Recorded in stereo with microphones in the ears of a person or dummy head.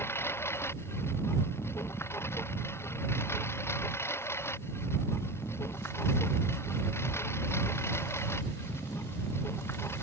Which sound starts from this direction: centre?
A lawn mower, at 0.0 s.